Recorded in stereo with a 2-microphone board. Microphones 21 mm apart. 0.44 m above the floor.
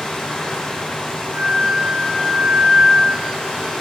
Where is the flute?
75° right (ahead or behind), 2.5 m.